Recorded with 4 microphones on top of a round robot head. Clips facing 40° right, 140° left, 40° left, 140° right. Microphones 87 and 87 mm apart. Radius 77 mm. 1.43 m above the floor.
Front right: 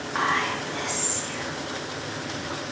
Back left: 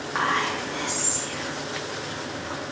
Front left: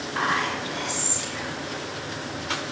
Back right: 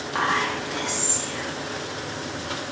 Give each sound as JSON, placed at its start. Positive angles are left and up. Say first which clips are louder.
{"t": 0.1, "sound": "whispering", "louder": "even, back right 2 dB", "azimuth_deg": -140, "distance_m": 0.9}